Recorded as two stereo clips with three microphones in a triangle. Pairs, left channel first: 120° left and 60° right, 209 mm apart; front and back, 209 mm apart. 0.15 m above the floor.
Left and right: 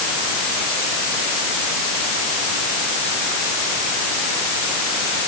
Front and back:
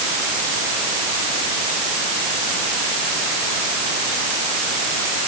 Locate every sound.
Only background noise.